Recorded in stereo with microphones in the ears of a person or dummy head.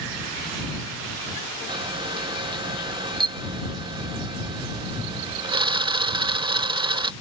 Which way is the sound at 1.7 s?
25° right (ahead or behind).